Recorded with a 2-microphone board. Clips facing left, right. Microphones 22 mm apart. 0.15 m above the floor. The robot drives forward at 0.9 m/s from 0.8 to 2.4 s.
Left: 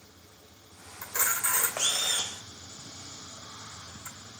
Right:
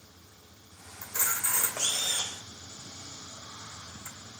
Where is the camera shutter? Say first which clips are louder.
Left 2 dB; 25° left (ahead or behind), 1.6 m; by 4.2 s 15° left (ahead or behind), 3 m.